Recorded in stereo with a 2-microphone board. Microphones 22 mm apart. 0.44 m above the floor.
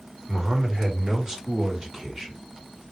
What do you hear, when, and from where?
0.3 s a man speaking: 30° right (ahead or behind), 1.7 m; by 2.4 s 15° right (ahead or behind), 1.5 m